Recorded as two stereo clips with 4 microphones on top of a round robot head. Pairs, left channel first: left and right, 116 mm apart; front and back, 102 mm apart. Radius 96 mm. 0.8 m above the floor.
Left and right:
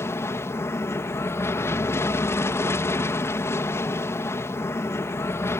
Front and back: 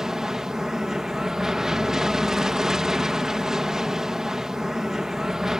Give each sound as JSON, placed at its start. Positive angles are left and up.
{"t": 0.0, "sound": "an aircraft", "azimuth_deg": 105}